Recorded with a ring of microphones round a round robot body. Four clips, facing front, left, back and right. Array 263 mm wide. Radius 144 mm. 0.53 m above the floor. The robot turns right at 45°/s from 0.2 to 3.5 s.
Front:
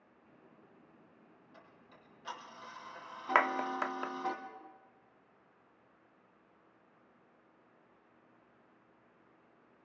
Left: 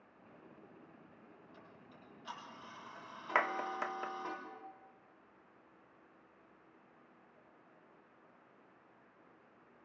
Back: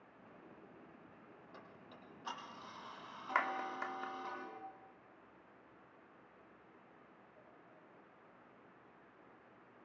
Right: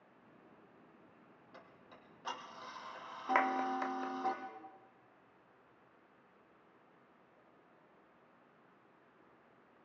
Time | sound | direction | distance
1.5 | ticking | 140° right | 4 m
3.4 | a clap | straight ahead | 1.0 m